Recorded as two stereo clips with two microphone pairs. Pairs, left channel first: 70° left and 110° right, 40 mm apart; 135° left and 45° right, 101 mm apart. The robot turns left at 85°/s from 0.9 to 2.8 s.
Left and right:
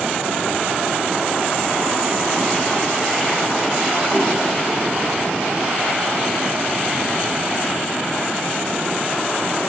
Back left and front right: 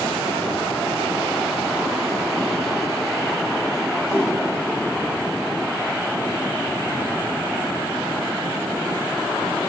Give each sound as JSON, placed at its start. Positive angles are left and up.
{"t": 4.1, "sound": "a whoosh", "azimuth_deg": -175, "distance_m": 5.0}